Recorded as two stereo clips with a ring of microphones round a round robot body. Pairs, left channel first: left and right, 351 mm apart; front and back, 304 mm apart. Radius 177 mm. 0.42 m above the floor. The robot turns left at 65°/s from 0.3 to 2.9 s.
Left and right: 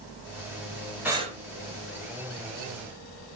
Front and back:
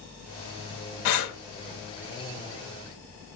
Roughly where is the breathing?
Ahead.